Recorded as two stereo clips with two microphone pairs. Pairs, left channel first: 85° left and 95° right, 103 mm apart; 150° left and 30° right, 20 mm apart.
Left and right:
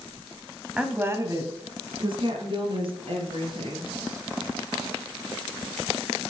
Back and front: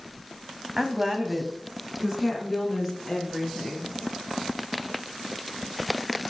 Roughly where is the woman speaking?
Ahead right.